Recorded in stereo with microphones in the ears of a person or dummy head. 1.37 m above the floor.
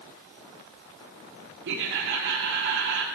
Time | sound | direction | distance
1.6 | laughter | 60° right (ahead or behind) | 0.9 m